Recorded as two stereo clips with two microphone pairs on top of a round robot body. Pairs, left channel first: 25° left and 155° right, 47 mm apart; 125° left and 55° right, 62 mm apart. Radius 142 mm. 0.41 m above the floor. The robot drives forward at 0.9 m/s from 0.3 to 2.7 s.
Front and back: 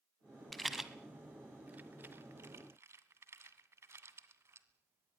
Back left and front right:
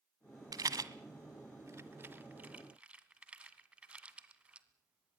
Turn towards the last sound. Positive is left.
turn(degrees=-125)